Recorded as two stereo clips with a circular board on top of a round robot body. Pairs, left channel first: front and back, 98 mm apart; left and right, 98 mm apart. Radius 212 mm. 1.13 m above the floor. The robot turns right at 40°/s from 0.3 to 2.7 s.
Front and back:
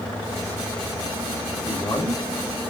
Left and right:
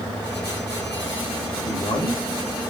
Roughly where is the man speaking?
Ahead left.